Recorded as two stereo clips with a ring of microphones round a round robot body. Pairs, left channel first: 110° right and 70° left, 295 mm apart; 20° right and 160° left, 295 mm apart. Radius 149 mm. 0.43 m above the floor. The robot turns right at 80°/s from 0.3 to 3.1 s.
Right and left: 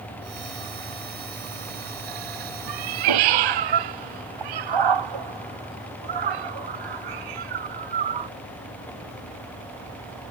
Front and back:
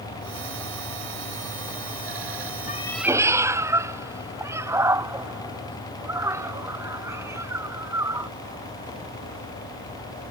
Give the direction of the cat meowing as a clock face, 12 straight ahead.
11 o'clock.